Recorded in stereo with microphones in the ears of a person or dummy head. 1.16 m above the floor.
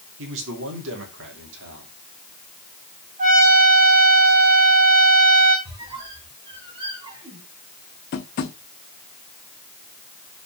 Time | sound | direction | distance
0.2 | a man speaking | 75° right (ahead or behind) | 2.5 m
3.2 | a trumpet | 40° right (ahead or behind) | 3.5 m
5.7 | a squeak | 25° right (ahead or behind) | 1.4 m
8.1 | tapping | 50° left (ahead or behind) | 0.8 m